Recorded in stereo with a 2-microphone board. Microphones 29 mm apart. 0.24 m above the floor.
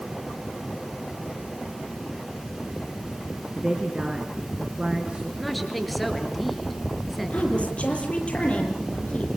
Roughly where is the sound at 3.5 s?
Right.